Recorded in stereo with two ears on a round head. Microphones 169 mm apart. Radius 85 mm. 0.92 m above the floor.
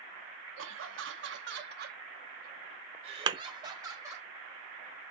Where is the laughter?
80° right, 1.4 m; by 4.3 s 15° right (ahead or behind), 1.8 m.